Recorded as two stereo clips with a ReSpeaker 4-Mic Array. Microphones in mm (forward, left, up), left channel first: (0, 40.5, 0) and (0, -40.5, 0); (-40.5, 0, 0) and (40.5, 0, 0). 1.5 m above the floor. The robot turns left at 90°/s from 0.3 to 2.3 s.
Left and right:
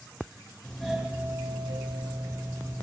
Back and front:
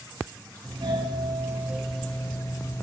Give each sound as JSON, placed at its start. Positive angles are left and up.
{"t": 0.6, "sound": "a doorbell", "azimuth_deg": 20, "distance_m": 1.6}